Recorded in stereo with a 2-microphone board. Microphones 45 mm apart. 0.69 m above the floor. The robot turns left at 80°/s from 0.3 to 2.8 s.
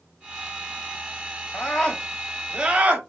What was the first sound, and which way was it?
A scream, 60° left.